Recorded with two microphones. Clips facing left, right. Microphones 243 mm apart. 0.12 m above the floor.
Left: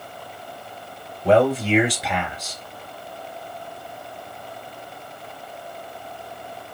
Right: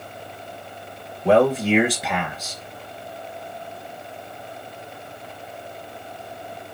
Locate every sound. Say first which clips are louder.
1.2 s a man speaking: right 1 dB; centre (ahead or behind), 1.7 m